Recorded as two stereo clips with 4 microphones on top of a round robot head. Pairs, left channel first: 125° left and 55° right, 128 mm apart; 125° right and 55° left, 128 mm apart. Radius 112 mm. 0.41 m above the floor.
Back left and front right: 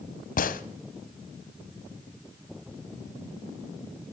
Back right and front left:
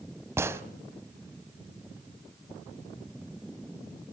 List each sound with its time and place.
0.4 s a gunshot: 125° left, 1.2 m